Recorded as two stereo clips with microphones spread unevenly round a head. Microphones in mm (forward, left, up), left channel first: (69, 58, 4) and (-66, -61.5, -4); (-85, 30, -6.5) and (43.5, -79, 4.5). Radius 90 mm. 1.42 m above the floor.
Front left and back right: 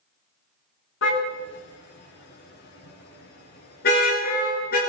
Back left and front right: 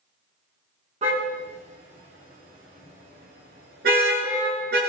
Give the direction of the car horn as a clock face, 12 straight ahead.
11 o'clock.